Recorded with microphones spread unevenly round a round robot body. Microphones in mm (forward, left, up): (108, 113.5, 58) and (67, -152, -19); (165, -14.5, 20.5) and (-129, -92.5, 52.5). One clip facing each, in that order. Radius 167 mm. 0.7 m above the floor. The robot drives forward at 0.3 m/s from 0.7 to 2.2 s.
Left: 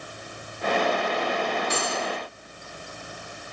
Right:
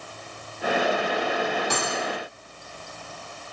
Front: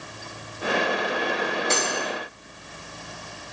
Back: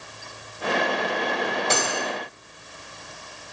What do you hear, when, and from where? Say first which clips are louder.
1.7 s cutlery clinking: even, even; 145° right, 2.5 m; by 2.1 s 150° right, 2.5 m